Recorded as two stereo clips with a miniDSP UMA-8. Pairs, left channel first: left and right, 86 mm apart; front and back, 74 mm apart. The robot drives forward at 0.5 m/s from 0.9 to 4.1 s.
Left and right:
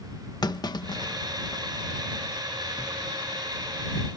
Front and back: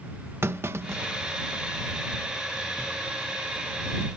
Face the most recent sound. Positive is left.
turn(degrees=60)